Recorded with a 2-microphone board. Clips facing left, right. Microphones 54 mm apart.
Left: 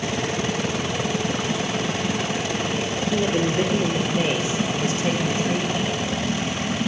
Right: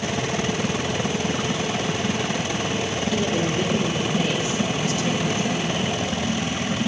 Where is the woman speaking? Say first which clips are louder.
Left 3 dB; 20° left (ahead or behind), 3 m; by 5.9 s 35° left (ahead or behind), 4.5 m.